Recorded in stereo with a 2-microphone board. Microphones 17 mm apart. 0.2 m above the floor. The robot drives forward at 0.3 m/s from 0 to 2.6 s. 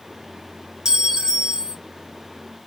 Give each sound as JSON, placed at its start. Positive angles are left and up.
{"t": 0.8, "sound": "a clink", "side_deg": -45, "distance_m": 1.0}